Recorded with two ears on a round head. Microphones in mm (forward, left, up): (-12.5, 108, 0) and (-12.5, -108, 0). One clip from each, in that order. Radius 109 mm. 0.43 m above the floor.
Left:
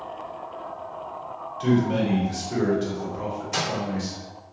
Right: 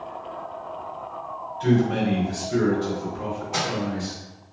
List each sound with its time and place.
1.6 s a man speaking: 40° left (ahead or behind), 1.5 m
3.5 s a microwave: 50° left (ahead or behind), 1.1 m